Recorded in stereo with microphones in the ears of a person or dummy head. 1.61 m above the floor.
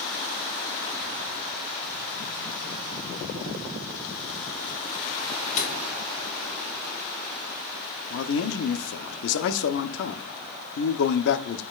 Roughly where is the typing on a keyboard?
No typing on a keyboard in this recording.